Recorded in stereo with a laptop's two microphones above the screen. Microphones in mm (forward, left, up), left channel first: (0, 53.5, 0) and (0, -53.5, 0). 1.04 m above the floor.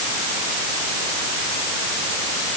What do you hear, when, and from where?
Only background noise.